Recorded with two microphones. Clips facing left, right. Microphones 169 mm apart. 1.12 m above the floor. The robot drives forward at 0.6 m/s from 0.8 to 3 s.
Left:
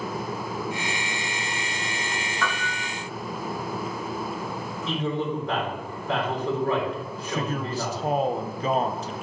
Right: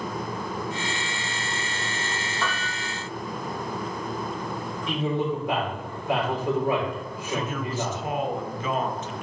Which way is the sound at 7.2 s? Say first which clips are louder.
Even; 35° left (ahead or behind).